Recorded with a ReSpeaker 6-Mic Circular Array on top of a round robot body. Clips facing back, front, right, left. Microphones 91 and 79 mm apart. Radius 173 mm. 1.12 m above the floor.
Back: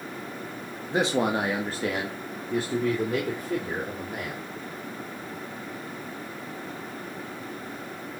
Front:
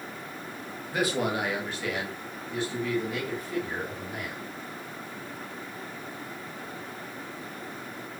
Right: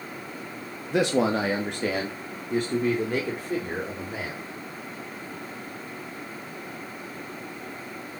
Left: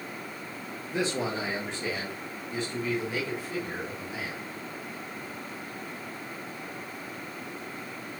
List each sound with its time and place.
0.9 s a man speaking: 110° right, 1.6 m; by 4.5 s 135° right, 4 m